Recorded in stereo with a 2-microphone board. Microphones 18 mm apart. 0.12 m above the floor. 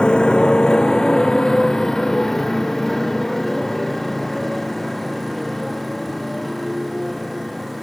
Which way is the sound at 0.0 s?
70° left (ahead or behind).